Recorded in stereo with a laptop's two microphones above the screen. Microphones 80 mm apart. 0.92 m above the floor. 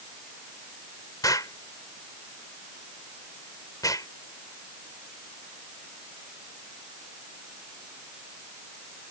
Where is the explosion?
50° left (ahead or behind).